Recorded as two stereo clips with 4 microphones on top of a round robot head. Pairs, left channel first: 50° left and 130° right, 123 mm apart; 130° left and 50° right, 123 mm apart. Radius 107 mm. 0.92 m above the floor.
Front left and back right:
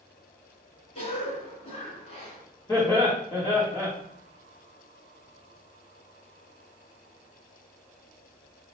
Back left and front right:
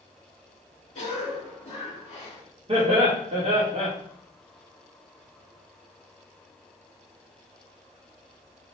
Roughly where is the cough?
Left.